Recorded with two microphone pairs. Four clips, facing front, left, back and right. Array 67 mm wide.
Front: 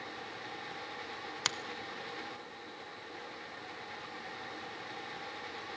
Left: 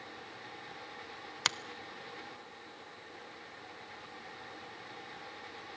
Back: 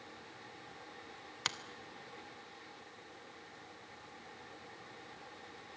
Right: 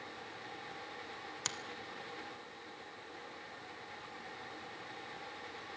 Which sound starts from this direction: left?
A finger snap, at 1.4 s.